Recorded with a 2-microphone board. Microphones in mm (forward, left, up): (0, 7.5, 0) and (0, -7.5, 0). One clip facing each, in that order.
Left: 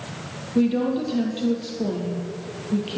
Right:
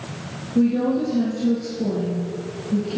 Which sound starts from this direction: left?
A woman speaking, at 0.6 s.